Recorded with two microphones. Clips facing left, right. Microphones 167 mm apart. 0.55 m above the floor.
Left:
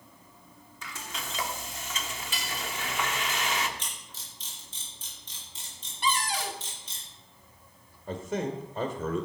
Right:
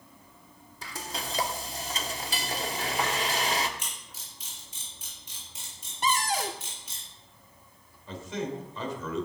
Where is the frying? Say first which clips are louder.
Right 3 dB; 35° right (ahead or behind), 1.0 m.